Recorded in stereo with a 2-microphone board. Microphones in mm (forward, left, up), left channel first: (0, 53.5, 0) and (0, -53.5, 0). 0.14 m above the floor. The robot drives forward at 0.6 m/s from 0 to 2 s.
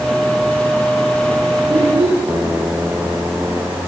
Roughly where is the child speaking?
Right.